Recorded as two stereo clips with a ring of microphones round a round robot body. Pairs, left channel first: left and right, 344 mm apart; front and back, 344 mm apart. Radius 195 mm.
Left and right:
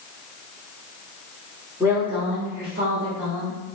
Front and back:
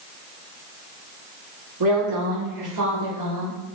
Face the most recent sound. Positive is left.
turn(degrees=-140)